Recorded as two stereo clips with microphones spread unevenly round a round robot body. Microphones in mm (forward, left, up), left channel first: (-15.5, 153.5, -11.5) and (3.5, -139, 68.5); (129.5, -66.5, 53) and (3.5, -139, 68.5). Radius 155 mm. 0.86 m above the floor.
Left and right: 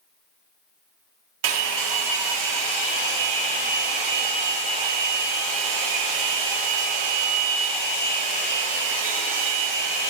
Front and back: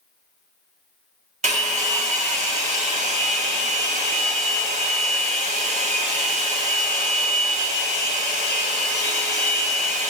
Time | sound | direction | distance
1.4 | a hair dryer | 110° right | 2 m